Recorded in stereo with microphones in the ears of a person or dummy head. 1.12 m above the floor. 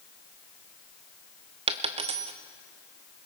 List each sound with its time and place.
1.7 s a dropped coin: 30° right (ahead or behind), 0.5 m